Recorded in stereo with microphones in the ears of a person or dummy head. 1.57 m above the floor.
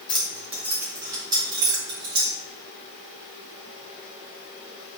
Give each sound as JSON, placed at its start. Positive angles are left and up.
{"t": 0.1, "sound": "keys jangling", "side_deg": 0, "distance_m": 0.7}